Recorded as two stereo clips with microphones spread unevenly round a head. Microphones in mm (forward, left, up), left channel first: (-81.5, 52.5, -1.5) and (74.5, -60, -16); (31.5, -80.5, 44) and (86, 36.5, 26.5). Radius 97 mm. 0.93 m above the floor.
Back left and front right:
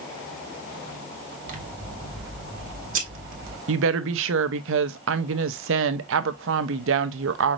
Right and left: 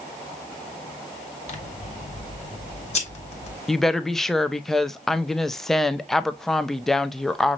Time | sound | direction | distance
1.5 | scissors | 80° right | 1.3 m
3.7 | a woman speaking | 25° right | 0.6 m